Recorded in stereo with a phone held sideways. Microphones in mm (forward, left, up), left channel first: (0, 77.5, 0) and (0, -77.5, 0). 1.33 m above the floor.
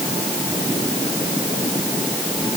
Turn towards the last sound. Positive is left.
No sound to turn to.